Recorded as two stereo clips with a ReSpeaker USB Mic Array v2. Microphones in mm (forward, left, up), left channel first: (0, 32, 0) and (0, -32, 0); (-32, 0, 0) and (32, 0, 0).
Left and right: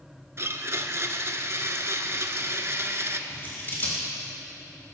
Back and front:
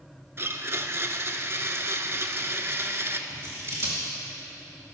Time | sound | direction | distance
0.4 | a blender | 45° right | 0.5 m
3.3 | scissors | 40° left | 2.5 m